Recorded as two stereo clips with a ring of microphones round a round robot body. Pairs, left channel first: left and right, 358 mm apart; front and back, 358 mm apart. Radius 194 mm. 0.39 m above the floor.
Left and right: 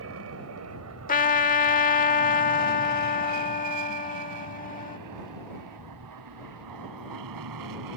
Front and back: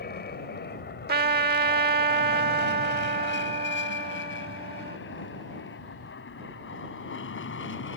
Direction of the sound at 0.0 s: 55° right.